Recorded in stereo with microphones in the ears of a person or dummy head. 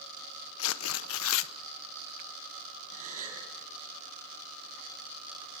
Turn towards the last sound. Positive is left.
turn(degrees=-45)  # may be behind; listen again after turning